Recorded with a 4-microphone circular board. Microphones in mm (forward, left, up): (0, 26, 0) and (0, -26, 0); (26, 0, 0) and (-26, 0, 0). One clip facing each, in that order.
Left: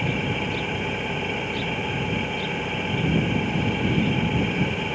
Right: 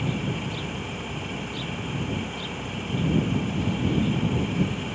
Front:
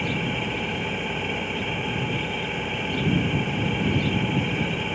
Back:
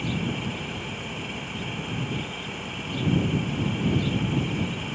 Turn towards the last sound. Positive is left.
turn(degrees=50)